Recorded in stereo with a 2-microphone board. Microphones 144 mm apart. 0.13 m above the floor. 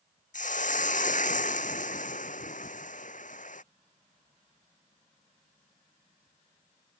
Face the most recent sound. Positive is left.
turn(degrees=65)  # may be behind; listen again after turning